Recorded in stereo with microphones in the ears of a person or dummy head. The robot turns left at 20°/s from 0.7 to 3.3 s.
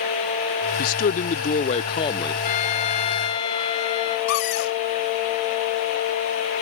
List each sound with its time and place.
0.8 s a man speaking: 50° left; by 2.3 s 20° left
2.4 s a trumpet: 45° left (ahead or behind); by 4.2 s 25° left (ahead or behind)
4.3 s a cupboard door: 70° left (ahead or behind)